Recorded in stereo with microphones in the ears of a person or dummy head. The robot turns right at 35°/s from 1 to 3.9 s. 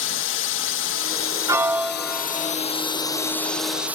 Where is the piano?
15° right; by 2.5 s 25° left.